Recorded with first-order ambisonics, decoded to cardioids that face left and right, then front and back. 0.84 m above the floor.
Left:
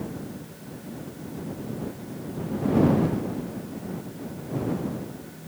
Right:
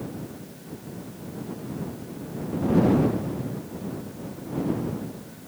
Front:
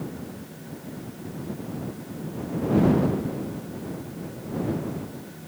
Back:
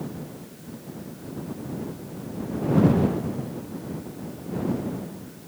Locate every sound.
Only background noise.